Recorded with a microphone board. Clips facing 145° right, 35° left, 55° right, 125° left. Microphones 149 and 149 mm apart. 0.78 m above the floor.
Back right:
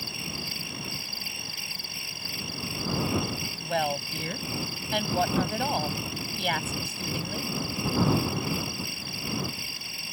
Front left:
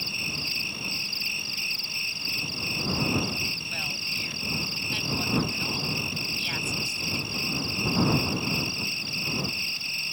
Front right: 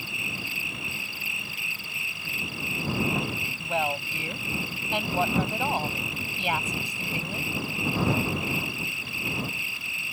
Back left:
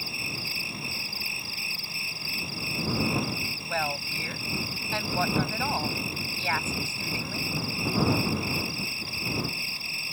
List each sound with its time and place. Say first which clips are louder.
0.0 s an insect: even, front right 1 dB; straight behind
3.6 s a woman speaking: back right 12 dB, front right 4 dB; 130° right